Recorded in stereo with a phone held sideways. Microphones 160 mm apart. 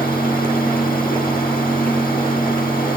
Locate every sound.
0.0 s a fan: 60° left (ahead or behind), 1.8 m